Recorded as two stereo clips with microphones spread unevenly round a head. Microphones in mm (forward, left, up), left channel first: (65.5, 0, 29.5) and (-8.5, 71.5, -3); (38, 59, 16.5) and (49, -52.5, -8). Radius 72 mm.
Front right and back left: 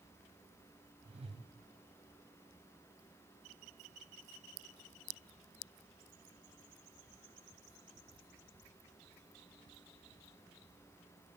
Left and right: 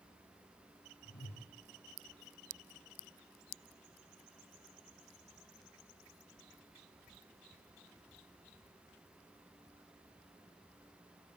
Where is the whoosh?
110° left, 6.5 m.